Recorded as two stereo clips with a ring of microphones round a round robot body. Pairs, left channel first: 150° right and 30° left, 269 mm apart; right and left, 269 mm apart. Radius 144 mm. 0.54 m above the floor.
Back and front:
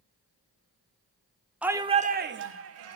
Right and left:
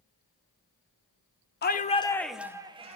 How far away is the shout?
About 1.2 m.